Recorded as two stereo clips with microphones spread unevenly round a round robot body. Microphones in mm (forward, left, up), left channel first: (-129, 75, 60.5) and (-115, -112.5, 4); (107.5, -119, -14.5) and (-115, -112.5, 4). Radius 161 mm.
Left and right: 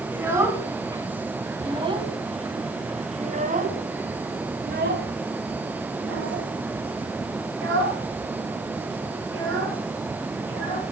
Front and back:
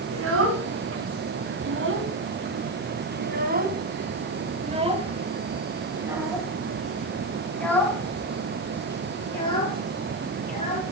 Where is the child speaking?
165° right, 3.5 m; by 10.8 s 65° right, 4 m.